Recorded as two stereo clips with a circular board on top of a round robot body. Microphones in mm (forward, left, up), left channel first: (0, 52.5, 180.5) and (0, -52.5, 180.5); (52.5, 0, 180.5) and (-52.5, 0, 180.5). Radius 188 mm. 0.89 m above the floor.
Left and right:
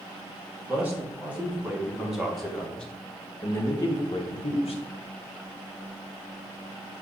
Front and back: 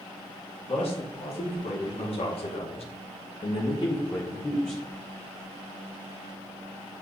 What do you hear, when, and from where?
0.7 s a man speaking: 20° right, 2.5 m; by 4.8 s 75° left, 1.2 m